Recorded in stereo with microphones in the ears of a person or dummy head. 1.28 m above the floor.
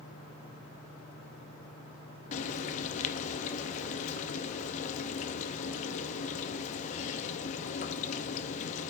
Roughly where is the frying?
Left.